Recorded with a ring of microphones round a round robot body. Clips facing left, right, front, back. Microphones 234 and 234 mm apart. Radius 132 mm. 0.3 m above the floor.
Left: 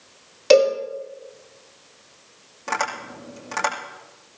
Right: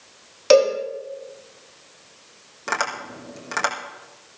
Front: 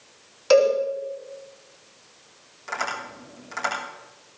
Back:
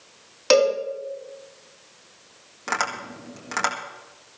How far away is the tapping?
About 5 m.